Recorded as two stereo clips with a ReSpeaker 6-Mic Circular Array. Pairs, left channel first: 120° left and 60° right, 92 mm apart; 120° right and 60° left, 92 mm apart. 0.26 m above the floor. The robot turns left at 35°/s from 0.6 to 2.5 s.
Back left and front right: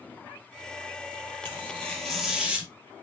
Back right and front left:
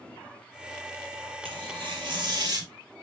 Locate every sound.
1.4 s tearing paper: 55° left, 2.5 m; by 2.7 s 15° left, 2.5 m